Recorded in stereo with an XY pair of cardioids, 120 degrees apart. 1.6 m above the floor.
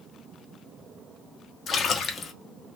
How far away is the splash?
About 0.9 m.